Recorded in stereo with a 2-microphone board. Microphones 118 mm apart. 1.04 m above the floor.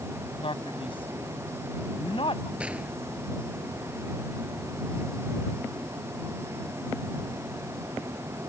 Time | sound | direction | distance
0.4 | a man speaking | 45° left (ahead or behind) | ?
2.6 | a gunshot | 10° right (ahead or behind) | ?